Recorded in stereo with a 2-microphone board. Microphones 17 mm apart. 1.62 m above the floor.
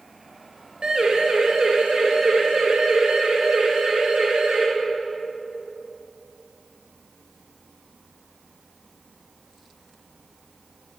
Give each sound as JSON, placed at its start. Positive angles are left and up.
{"t": 0.8, "sound": "a siren", "side_deg": -60, "distance_m": 5.5}